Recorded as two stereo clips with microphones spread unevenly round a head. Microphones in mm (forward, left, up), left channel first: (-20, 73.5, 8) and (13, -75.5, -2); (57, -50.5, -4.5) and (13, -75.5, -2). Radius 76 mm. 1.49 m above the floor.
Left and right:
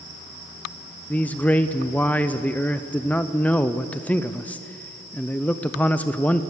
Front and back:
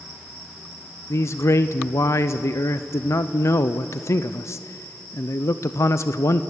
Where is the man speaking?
20° left, 0.6 m.